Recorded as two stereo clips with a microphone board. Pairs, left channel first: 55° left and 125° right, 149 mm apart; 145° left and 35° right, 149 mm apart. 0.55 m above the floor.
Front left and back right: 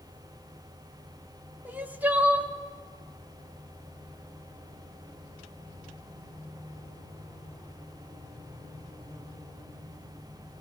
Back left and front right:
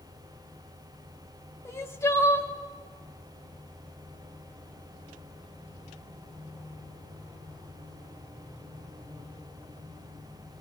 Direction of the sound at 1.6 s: Straight behind.